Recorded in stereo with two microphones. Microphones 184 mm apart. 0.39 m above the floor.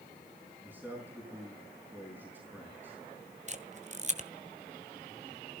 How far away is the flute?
I don't hear a flute.